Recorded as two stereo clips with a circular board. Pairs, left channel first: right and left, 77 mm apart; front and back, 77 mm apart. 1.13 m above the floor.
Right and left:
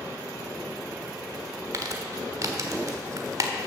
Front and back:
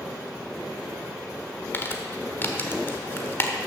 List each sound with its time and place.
1.7 s crumpling: 60° left, 1.3 m